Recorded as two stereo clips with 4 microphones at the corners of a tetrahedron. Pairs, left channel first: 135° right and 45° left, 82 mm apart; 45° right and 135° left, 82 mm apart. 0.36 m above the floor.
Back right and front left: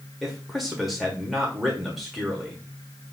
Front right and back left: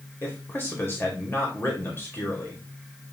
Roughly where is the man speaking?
Ahead right.